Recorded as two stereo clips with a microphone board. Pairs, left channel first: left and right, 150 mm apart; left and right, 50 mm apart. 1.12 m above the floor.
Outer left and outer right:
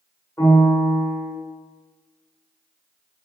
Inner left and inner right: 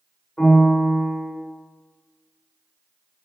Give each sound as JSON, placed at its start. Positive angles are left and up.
{"t": 0.4, "sound": "a piano", "side_deg": 15, "distance_m": 2.5}